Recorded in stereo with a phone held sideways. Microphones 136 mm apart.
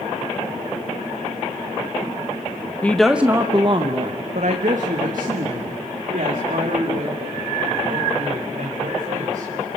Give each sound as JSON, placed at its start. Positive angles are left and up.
{"t": 2.8, "sound": "a woman speaking", "side_deg": 10, "distance_m": 0.7}